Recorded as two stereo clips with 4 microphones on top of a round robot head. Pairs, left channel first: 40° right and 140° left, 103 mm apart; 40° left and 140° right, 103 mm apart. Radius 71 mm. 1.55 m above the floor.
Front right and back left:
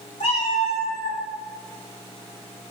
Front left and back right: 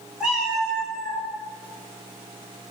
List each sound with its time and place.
0.2 s a cat meowing: 60° right, 1.1 m; by 1.2 s 115° left, 0.9 m